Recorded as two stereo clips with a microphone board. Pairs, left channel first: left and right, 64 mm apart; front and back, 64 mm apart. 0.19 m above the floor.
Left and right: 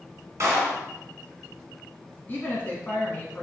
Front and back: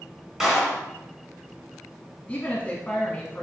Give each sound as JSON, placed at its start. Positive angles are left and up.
{"t": 0.4, "sound": "a clap", "azimuth_deg": -100, "distance_m": 1.1}
{"t": 2.3, "sound": "a woman speaking", "azimuth_deg": 55, "distance_m": 1.1}